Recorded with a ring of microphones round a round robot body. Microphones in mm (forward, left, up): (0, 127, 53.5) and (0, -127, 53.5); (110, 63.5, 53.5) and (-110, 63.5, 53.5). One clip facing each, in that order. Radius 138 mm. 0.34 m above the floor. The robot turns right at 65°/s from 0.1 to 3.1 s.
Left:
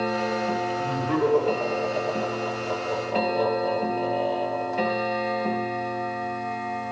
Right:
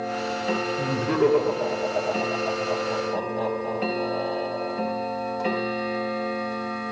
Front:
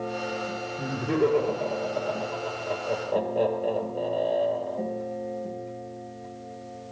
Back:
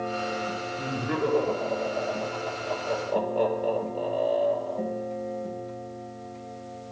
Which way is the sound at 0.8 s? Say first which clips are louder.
Right 3 dB, front 5 dB; 70° right.